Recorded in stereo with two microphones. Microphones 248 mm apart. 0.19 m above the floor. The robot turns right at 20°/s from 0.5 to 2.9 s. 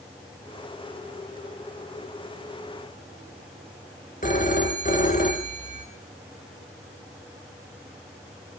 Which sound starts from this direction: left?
A phone ringing, at 4.2 s.